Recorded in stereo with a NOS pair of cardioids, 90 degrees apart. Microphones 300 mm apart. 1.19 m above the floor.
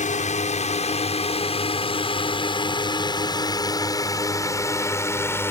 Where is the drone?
25° left; by 5.5 s 10° left.